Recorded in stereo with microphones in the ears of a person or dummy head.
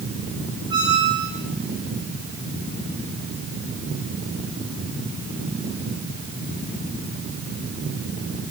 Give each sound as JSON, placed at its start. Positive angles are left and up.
{"t": 0.7, "sound": "a squeak", "side_deg": -25, "distance_m": 2.5}